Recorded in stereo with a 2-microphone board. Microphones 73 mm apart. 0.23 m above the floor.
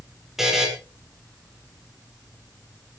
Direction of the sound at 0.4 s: 5° right (ahead or behind).